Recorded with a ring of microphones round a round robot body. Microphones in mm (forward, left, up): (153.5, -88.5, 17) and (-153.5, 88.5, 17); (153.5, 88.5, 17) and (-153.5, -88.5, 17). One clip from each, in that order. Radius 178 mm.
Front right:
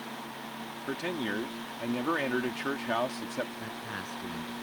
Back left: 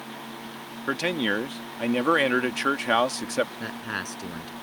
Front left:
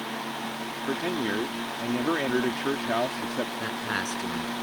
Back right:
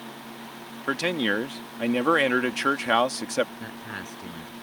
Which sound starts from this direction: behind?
A man speaking, at 0.9 s.